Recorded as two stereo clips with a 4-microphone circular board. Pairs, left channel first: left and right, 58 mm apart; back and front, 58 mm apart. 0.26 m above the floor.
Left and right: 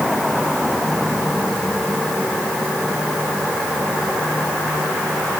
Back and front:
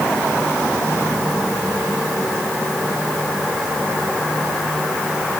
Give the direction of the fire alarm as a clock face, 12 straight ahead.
No fire alarm in this recording.